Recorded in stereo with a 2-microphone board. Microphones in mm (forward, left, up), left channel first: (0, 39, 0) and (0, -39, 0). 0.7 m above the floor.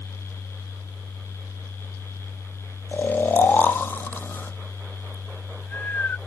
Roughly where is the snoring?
Left.